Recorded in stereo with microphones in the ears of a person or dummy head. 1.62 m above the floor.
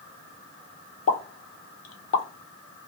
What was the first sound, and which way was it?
A pop, 65° left (ahead or behind).